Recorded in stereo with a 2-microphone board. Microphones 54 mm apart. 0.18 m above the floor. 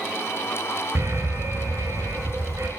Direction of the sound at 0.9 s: 60° right (ahead or behind).